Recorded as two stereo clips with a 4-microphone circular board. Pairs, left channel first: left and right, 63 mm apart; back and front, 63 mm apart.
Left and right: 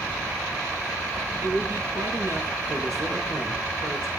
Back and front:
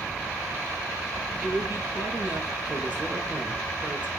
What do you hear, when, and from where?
1.4 s a man speaking: 70° right, 6.5 m